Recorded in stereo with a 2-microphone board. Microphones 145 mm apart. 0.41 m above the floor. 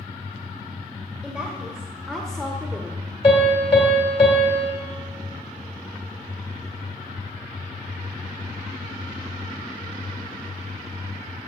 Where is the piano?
35° left (ahead or behind), 2.5 m.